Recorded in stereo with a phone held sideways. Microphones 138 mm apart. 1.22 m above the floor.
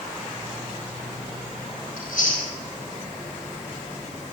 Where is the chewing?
85° left, 4 m.